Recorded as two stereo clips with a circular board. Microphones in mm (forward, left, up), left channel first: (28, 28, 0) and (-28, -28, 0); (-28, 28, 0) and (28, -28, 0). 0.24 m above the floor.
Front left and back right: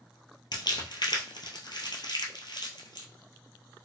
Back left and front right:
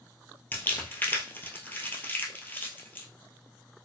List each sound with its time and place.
0.5 s crumpling: 70° left, 1.0 m